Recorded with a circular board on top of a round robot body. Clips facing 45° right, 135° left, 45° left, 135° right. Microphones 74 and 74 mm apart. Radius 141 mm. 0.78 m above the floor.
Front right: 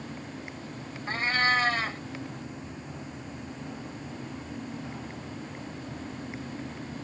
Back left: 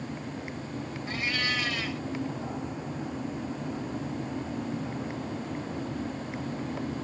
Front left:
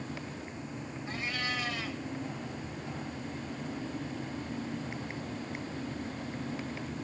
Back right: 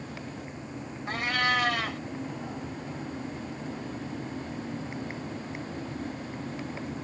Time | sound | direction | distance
1.1 | a cat meowing | 100° right | ?